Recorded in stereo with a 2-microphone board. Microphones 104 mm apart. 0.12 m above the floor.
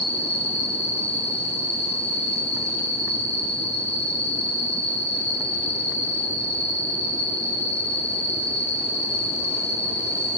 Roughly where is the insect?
Right.